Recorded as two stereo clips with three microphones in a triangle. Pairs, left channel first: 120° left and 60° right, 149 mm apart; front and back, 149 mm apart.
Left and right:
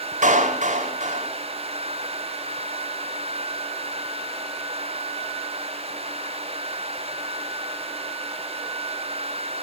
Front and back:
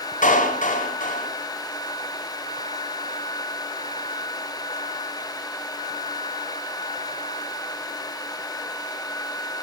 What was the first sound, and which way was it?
A clap, 30° right.